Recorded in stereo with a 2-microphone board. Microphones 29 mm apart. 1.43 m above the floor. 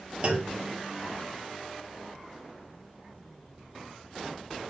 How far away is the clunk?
About 1.4 m.